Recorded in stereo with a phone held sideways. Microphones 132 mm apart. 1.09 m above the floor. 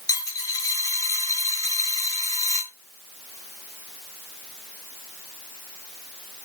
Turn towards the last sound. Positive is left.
turn(degrees=25)  # may be behind; listen again after turning